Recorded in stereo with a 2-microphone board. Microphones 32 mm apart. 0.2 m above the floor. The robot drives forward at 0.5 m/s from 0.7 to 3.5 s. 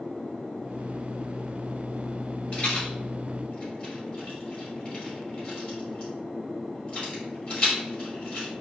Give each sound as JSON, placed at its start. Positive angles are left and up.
{"t": 2.5, "sound": "a rattle", "side_deg": 30, "distance_m": 1.7}